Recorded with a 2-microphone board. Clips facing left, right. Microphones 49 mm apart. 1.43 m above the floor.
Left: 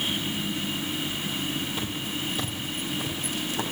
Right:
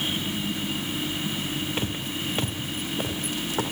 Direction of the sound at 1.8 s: 50° right (ahead or behind).